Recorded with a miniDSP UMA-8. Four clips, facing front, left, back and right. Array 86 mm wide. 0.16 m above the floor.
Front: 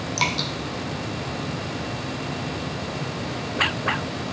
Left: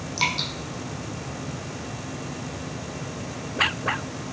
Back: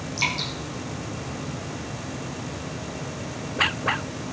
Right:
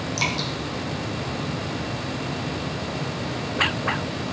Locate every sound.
0.2 s dripping: 10° left, 2.5 m